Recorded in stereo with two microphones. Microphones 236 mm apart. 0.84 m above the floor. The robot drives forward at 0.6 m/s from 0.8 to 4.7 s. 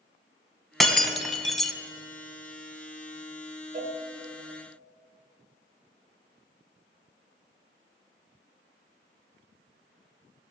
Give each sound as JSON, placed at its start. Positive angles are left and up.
{"t": 0.8, "sound": "breaking glass", "side_deg": 0, "distance_m": 0.9}
{"t": 3.7, "sound": "a cowbell", "side_deg": -40, "distance_m": 1.7}